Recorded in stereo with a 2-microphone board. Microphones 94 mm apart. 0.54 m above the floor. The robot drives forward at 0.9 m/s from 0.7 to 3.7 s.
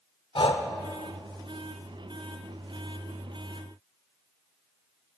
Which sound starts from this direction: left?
Breathing, at 0.3 s.